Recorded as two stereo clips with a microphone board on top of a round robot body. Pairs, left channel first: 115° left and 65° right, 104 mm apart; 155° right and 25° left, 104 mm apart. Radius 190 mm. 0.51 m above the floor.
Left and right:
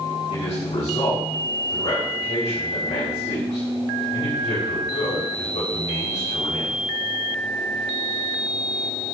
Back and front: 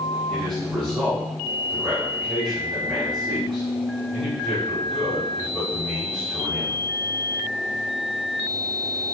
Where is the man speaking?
120° left, 3 m.